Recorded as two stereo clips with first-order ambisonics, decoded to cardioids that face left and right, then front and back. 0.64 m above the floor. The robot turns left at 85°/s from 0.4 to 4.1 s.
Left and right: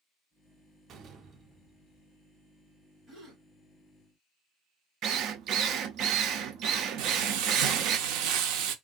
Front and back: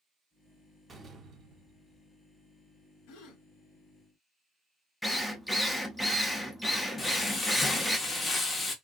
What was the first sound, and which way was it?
A door slam, 115° right.